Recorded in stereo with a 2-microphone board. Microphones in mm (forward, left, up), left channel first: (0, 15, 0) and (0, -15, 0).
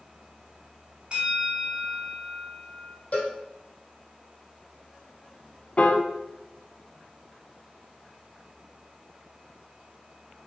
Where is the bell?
35° right (ahead or behind), 1.4 m.